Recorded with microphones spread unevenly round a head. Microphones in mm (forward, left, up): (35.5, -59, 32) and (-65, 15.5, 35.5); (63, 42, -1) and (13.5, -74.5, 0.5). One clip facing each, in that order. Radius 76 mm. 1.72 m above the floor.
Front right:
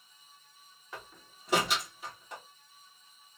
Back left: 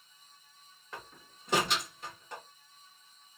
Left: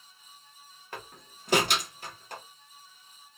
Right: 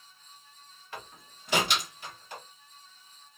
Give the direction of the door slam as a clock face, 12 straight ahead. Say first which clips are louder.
Even, left 1 dB; 10 o'clock.